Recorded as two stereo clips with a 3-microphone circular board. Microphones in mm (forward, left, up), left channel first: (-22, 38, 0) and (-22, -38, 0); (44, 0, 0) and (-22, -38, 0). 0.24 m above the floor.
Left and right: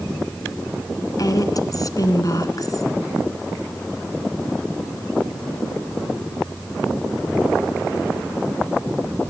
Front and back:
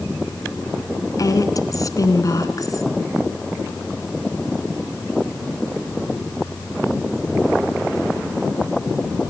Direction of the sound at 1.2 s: 60° left.